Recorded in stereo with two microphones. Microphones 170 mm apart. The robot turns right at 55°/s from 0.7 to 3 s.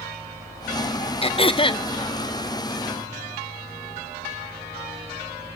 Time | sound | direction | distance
1.2 | throat clearing | 90° left | 0.7 m